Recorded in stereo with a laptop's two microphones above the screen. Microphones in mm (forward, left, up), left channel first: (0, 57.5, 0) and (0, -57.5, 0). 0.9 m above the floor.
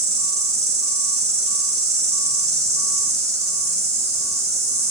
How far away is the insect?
About 1.2 m.